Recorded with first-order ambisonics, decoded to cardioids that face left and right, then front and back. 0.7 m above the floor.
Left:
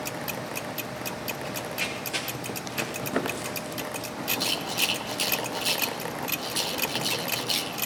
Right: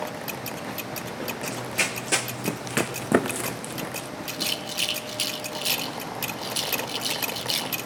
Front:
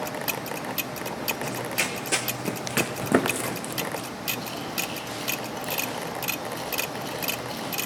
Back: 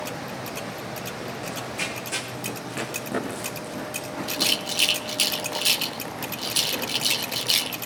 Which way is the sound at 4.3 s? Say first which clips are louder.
Left 1 dB, back 9 dB; 170° right.